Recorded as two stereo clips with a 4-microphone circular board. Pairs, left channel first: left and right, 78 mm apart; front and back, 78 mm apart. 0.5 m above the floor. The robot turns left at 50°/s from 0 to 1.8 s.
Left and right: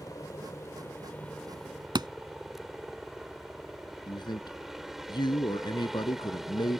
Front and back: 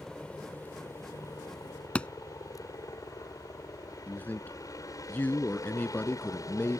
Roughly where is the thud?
Right.